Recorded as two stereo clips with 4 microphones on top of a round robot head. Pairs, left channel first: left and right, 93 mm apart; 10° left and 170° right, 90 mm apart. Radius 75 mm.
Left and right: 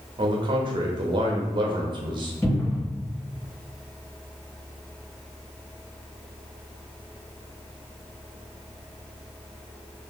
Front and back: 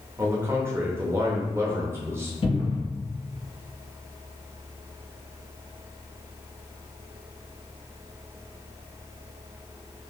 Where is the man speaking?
110° right, 0.7 m.